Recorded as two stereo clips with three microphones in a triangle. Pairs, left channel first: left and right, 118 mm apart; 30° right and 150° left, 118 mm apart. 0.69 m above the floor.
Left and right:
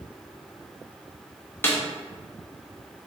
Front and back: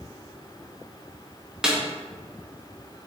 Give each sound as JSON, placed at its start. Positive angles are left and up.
{"t": 1.6, "sound": "a snare drum", "azimuth_deg": 85, "distance_m": 0.6}